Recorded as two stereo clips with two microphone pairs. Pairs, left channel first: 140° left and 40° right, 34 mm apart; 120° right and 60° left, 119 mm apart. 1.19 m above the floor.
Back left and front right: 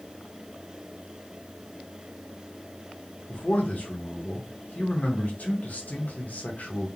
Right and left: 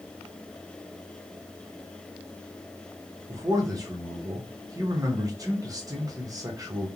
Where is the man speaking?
115° left, 0.8 m.